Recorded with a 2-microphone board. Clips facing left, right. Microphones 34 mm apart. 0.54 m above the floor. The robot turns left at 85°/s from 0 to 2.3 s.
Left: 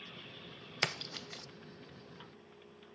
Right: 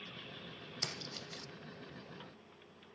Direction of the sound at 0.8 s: 50° left (ahead or behind).